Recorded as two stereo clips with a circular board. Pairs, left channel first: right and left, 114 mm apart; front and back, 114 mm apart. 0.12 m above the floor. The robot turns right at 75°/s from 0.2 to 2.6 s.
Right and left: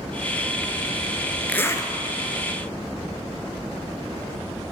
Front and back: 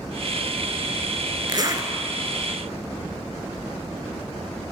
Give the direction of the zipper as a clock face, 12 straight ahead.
5 o'clock.